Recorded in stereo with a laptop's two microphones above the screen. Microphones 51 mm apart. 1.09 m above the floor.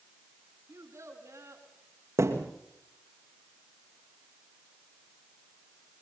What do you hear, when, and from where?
0.7 s a child speaking: 65° right (ahead or behind), 5.5 m
2.2 s a thud: 70° right (ahead or behind), 3 m